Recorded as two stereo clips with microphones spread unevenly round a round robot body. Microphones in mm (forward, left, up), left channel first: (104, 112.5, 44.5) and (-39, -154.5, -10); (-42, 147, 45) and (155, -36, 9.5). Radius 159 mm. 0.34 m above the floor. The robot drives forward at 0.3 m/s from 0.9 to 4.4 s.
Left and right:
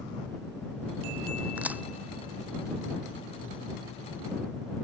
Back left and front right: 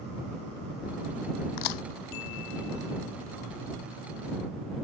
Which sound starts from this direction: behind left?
A crack, at 1.6 s.